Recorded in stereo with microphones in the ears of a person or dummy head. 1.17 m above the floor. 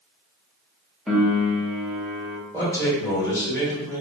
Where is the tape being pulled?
No tape being pulled in this recording.